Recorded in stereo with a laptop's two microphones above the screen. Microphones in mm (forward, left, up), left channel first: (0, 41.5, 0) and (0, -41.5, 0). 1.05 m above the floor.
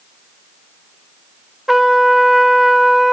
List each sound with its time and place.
1.7 s a trumpet: centre (ahead or behind), 0.9 m